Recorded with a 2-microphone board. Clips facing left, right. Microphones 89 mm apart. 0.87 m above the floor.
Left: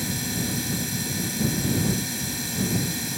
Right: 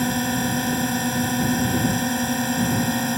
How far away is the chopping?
No chopping in this recording.